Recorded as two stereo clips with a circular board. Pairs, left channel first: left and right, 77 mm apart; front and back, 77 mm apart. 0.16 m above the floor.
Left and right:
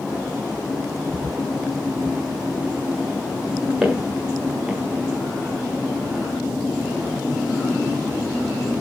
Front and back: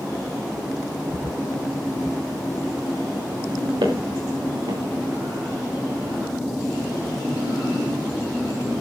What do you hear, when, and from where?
3.8 s footsteps: 175° right, 5 m